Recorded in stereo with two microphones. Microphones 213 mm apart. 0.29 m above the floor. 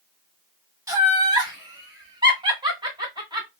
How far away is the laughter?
About 1.5 m.